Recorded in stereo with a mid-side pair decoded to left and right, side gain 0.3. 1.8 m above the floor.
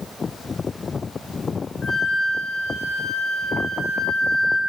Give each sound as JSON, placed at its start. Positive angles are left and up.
{"t": 1.8, "sound": "a flute", "azimuth_deg": 65, "distance_m": 2.0}